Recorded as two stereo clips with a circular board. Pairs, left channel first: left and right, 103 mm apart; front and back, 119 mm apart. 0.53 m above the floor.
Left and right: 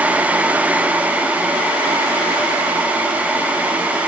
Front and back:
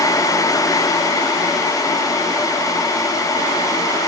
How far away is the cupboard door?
I don't hear a cupboard door.